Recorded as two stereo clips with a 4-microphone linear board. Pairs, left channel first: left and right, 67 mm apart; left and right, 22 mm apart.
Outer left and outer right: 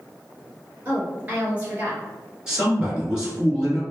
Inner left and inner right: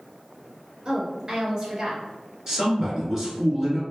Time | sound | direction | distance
0.8 | a woman speaking | 25° right (ahead or behind) | 1.5 m
2.5 | a man speaking | 10° right (ahead or behind) | 1.6 m